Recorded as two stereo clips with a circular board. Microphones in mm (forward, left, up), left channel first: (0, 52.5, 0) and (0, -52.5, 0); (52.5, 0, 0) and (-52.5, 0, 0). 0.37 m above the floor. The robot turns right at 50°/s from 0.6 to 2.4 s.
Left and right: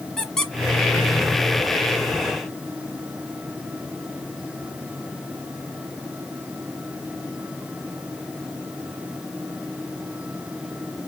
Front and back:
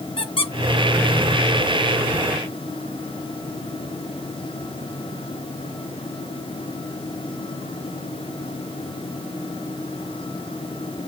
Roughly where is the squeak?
Ahead.